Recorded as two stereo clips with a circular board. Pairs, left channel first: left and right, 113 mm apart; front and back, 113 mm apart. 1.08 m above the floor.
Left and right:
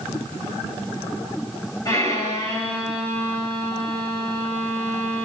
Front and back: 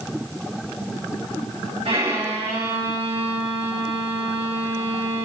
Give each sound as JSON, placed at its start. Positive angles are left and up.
{"t": 1.9, "sound": "a violin", "azimuth_deg": 145, "distance_m": 8.0}